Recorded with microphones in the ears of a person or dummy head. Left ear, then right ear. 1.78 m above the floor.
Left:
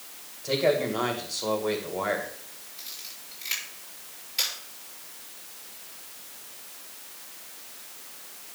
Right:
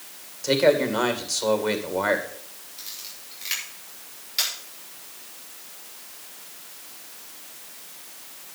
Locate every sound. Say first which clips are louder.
0.4 s a man speaking: right 5 dB; 80° right, 2 m
2.8 s a camera shutter: right 2 dB; 15° right (ahead or behind), 6 m